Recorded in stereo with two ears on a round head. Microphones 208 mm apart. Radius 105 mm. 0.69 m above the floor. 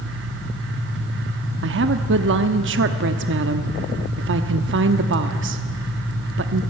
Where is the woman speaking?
55° right (ahead or behind), 0.9 m.